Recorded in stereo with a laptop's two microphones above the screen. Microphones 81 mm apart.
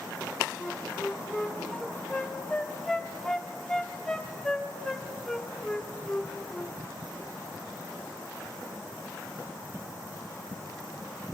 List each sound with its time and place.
0.6 s a flute: 10° left (ahead or behind), 0.9 m